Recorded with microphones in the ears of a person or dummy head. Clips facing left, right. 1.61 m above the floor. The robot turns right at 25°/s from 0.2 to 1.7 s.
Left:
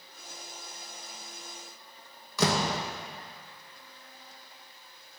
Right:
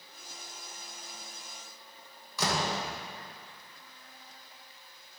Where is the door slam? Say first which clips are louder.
Left 4 dB; 50° left (ahead or behind), 1.1 m.